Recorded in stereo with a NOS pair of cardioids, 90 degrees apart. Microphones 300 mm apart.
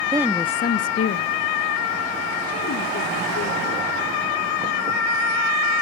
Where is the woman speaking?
15° right, 0.8 m; by 3.8 s 70° left, 5 m.